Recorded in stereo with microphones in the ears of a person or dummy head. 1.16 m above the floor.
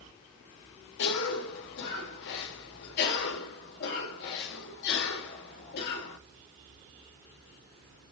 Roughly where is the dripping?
No dripping in this recording.